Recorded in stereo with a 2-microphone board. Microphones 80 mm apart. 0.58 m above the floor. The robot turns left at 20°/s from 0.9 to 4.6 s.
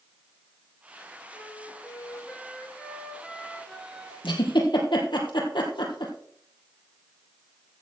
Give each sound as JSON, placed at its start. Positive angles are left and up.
{"t": 1.3, "sound": "a flute", "azimuth_deg": 45, "distance_m": 2.5}
{"t": 4.2, "sound": "a giggle", "side_deg": 80, "distance_m": 3.0}